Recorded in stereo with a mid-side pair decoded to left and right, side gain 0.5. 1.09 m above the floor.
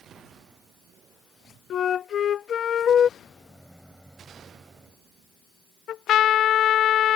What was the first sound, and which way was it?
A flute, 50° left.